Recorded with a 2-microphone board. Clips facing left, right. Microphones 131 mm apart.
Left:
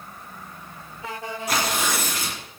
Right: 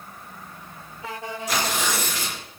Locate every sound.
1.5 s tearing paper: 55° left (ahead or behind), 2 m